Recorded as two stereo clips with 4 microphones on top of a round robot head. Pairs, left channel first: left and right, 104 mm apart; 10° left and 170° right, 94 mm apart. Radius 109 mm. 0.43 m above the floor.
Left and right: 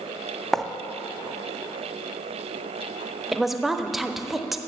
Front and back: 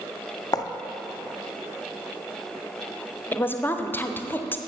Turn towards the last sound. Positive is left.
turn(degrees=-5)